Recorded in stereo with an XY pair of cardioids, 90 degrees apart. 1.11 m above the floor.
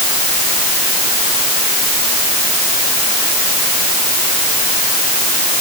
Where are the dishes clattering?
No dishes clattering in this recording.